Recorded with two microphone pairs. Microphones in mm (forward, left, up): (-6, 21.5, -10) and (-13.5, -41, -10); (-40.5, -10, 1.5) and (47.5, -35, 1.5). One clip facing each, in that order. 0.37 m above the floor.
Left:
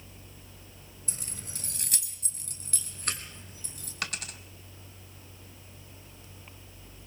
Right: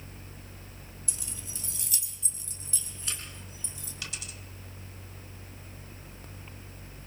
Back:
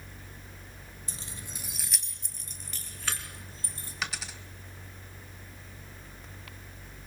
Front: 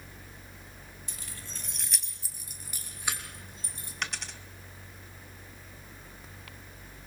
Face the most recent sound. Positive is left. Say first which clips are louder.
# left 7 dB, back 1 dB
turn(degrees=80)